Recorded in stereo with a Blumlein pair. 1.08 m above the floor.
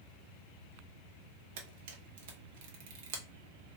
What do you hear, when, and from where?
1.6 s a camera shutter: 50° right, 0.9 m